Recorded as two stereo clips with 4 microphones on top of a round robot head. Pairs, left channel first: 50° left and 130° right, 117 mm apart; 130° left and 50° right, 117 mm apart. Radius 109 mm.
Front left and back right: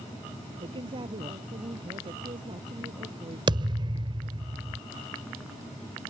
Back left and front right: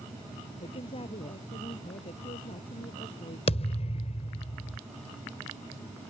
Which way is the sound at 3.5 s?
175° left.